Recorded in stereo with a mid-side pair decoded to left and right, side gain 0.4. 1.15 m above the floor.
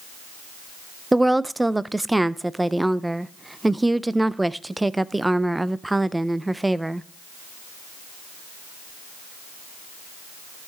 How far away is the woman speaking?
About 0.6 m.